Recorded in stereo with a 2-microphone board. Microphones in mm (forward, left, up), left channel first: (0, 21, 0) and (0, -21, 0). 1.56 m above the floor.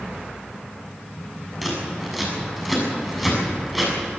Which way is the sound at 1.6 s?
5° left (ahead or behind).